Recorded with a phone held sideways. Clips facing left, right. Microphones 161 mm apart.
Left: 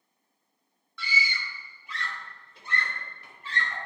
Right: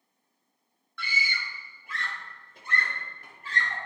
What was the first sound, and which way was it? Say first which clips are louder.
A scream: left 2 dB; 55° right (ahead or behind).